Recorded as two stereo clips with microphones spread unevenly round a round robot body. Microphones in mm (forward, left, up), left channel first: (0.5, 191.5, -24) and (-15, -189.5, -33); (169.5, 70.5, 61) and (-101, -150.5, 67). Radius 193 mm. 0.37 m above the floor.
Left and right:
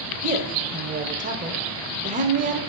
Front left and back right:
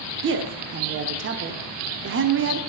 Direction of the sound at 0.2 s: 140° right.